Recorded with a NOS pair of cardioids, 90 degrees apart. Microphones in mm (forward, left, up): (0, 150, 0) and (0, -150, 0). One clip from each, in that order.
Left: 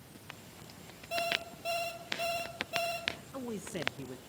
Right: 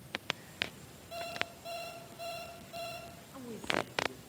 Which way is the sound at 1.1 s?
60° left.